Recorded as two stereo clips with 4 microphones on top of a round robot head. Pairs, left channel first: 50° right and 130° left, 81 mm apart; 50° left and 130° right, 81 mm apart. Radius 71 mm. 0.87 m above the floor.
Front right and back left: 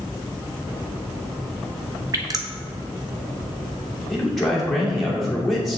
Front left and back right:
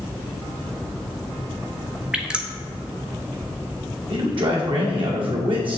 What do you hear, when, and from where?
2.1 s dripping: 150° left, 1.2 m
4.1 s a man speaking: 135° right, 2.5 m